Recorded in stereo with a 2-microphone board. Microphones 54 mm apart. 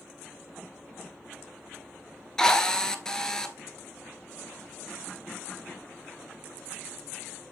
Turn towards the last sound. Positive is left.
turn(degrees=10)  # may be behind; listen again after turning